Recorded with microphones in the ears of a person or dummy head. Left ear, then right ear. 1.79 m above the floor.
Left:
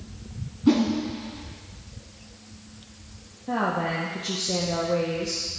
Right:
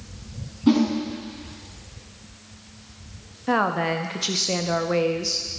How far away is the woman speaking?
About 0.5 m.